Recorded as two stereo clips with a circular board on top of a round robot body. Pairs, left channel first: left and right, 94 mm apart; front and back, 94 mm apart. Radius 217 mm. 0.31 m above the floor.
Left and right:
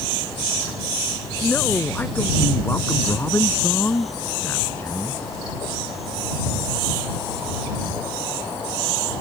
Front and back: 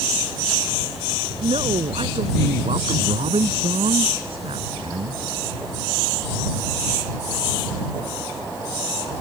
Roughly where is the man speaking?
Behind.